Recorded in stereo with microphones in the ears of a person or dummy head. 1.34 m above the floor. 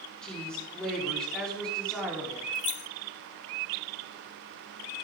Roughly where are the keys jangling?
Left.